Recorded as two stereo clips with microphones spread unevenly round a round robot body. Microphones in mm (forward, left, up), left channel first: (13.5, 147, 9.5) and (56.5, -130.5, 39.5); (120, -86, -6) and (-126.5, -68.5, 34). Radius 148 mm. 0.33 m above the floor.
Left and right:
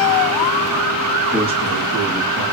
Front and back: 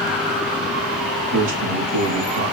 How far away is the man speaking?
About 4 m.